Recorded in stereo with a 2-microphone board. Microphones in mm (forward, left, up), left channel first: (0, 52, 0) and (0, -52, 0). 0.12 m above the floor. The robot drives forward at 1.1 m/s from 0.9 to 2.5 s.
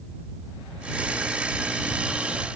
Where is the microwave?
I don't hear a microwave.